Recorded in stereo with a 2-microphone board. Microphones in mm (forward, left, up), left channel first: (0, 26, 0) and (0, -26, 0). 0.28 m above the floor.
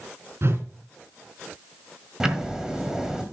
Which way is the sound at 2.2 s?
10° right (ahead or behind).